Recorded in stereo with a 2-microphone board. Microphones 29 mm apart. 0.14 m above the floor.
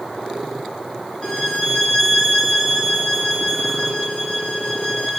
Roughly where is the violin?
Left.